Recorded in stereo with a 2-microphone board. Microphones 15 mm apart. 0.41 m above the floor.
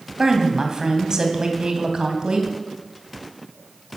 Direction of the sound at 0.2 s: 40° right (ahead or behind).